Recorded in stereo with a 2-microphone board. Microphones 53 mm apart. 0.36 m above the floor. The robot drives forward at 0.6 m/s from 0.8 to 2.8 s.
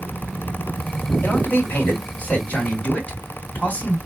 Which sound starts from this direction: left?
A man speaking, at 1.2 s.